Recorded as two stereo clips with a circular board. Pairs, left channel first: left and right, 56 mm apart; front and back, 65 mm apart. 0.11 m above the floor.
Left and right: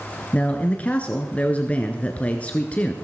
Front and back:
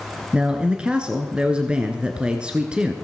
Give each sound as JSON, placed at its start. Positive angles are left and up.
{"t": 0.3, "sound": "a man speaking", "azimuth_deg": 120, "distance_m": 1.2}